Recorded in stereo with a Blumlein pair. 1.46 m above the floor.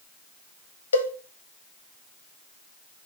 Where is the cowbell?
70° left, 1.3 m.